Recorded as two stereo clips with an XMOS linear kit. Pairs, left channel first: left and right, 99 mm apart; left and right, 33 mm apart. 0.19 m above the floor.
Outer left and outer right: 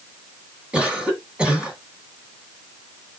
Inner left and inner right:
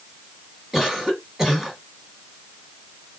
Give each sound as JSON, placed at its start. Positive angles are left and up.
{"t": 0.7, "sound": "a cough", "side_deg": -10, "distance_m": 1.8}